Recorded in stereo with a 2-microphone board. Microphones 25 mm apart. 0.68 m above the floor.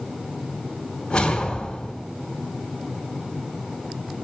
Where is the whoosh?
30° left (ahead or behind), 1.9 m.